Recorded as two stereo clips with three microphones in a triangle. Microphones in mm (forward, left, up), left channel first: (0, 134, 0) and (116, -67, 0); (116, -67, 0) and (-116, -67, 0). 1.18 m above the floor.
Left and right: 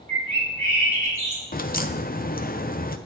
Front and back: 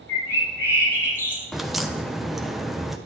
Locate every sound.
0.1 s a bird: 80° left, 3.5 m
1.5 s a crack: 90° left, 0.5 m